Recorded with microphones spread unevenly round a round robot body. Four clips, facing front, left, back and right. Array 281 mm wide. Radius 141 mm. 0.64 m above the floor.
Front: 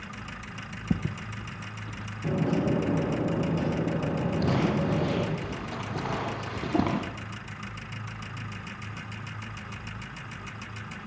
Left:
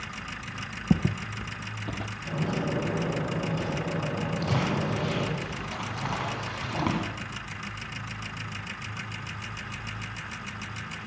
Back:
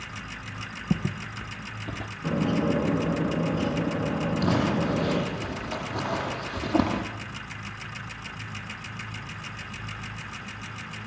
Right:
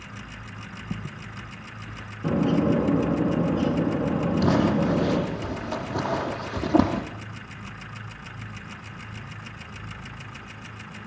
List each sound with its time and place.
0.9 s footsteps: 105° left, 0.7 m; by 2.1 s 140° left, 1.2 m
2.2 s a bird: 80° right, 6 m
4.4 s crumpling: 85° right, 8.5 m